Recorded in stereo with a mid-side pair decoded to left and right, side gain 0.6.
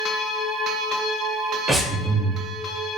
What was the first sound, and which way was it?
Breathing, 15° right.